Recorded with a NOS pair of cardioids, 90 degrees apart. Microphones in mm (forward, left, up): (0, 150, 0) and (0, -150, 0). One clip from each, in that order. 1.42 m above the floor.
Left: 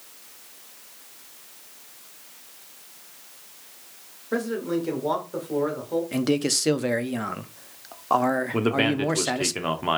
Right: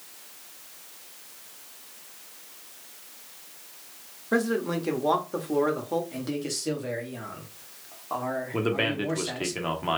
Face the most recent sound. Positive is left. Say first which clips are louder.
# left 3 dB
turn(degrees=15)